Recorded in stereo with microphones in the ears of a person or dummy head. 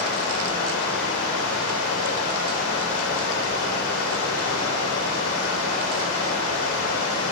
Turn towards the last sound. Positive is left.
turn(degrees=80)